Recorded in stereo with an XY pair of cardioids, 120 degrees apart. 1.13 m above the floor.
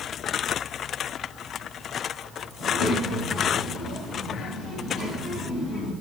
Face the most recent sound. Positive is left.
turn(degrees=65)